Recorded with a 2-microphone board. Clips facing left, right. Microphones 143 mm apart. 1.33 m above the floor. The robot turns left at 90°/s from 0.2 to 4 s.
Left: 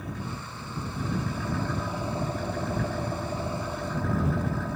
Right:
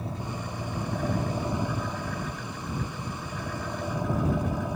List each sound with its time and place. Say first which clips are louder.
0.0 s an engine running: right 2 dB; 35° right; by 4.8 s 20° right